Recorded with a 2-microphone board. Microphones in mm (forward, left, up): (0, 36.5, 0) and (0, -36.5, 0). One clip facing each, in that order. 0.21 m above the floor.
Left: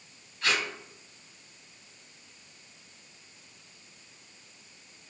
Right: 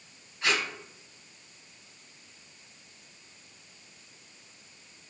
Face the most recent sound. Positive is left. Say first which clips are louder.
# even
turn(degrees=-20)  # may be behind; listen again after turning